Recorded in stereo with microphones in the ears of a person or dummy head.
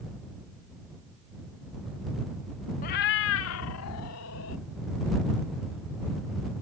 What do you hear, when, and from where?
2.8 s a cat meowing: 40° left (ahead or behind); by 4.6 s 70° left (ahead or behind)